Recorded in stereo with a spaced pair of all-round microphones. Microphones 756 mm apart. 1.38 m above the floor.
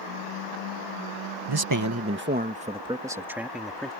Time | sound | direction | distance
1.5 | a man speaking | 35° right (ahead or behind) | ?